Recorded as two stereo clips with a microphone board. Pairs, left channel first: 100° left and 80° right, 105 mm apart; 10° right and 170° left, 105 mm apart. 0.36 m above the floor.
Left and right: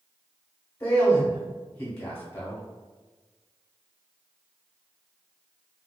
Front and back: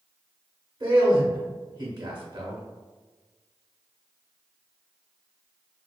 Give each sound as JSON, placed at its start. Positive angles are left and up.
{"t": 0.8, "sound": "a man speaking", "azimuth_deg": 150, "distance_m": 1.0}